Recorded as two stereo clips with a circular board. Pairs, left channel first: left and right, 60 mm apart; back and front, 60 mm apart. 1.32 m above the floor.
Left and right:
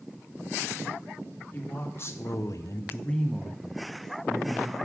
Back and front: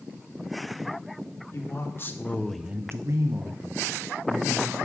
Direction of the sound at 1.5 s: 140° left.